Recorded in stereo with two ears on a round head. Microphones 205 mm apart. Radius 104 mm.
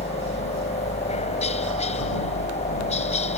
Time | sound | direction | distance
0.0 | a helicopter | 30° left (ahead or behind) | ?